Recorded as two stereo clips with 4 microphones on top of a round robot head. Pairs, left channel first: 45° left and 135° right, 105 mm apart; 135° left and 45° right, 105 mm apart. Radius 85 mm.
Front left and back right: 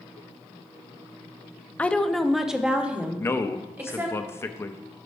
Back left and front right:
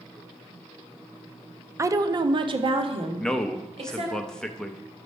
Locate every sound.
1.8 s a woman speaking: 20° right, 0.5 m; by 4.2 s 65° right, 1.7 m
3.2 s a man speaking: 60° left, 0.5 m